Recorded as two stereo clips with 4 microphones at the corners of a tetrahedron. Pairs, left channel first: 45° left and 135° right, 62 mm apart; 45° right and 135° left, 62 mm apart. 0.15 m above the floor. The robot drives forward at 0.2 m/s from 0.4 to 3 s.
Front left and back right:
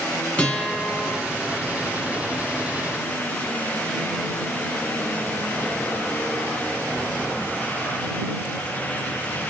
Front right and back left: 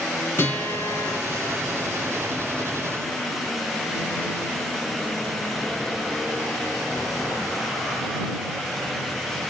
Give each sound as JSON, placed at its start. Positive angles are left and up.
{"t": 0.4, "sound": "a guitar", "azimuth_deg": -20, "distance_m": 1.6}